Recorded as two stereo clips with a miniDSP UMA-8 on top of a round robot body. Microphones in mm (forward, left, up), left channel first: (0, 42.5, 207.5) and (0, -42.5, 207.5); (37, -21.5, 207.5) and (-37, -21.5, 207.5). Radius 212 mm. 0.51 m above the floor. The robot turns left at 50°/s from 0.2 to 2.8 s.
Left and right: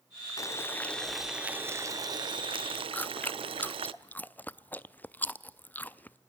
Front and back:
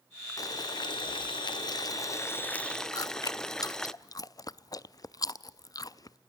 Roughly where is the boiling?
Ahead left.